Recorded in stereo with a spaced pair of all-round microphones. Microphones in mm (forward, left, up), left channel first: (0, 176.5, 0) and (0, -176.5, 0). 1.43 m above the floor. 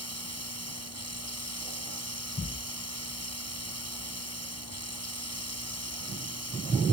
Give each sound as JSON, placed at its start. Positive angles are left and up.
{"t": 0.0, "sound": "running water", "side_deg": -45}